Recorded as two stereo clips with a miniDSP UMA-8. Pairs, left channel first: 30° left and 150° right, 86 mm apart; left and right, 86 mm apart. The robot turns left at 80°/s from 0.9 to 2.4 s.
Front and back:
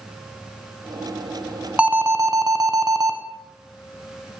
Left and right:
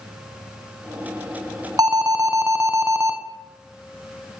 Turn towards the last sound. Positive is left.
turn(degrees=-130)